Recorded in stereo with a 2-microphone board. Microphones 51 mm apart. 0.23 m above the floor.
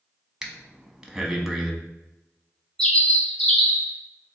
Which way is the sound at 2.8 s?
10° left (ahead or behind).